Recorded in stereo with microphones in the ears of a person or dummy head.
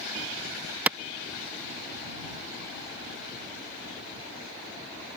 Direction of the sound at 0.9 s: 10° right (ahead or behind).